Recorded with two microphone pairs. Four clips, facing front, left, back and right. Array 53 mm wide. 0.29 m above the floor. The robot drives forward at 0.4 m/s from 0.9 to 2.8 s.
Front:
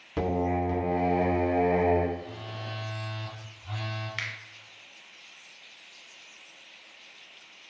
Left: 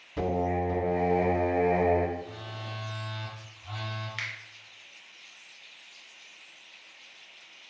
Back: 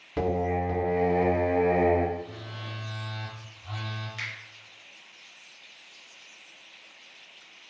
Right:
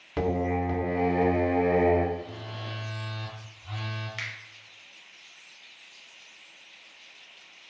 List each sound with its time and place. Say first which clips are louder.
0.2 s singing: right 1 dB, back 1 dB; 90° right, 0.8 m; by 2.0 s 120° right, 0.9 m
2.1 s a phone buzzing: right 1 dB, even; 155° left, 1.4 m; by 4.1 s 160° left, 1.5 m
4.2 s a finger snap: left 1 dB, front 1 dB; 15° left, 0.7 m